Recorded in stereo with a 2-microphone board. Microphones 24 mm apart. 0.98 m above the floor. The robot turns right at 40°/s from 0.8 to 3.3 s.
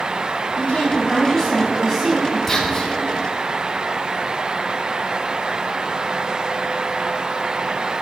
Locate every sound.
0.6 s a woman speaking: 140° left, 7 m; by 2.4 s 155° right, 7 m
2.5 s whispering: 15° left (ahead or behind), 3 m; by 2.9 s 30° left (ahead or behind), 3 m